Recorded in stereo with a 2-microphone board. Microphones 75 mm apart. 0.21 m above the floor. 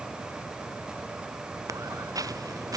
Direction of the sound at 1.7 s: 50° right (ahead or behind).